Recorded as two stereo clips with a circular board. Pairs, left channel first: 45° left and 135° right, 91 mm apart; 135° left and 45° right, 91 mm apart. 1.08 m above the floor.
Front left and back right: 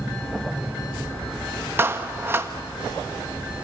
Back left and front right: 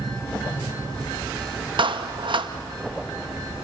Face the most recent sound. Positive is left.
turn(degrees=-70)